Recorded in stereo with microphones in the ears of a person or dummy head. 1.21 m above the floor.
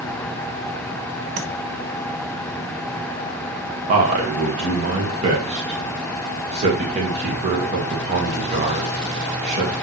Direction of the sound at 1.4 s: 55° right (ahead or behind).